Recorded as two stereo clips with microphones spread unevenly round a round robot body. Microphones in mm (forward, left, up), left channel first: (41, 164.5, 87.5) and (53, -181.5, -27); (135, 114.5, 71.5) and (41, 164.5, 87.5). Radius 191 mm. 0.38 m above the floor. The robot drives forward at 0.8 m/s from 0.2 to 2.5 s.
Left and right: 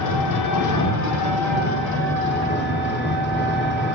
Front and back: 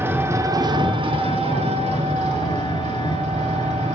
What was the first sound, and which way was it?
An engine running, 85° left.